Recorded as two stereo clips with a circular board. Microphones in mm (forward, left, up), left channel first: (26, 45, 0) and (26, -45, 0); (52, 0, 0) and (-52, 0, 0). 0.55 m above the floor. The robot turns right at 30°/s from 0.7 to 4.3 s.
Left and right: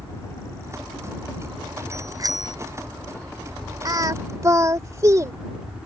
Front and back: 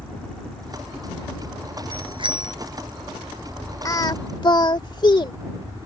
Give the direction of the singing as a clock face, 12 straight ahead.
2 o'clock.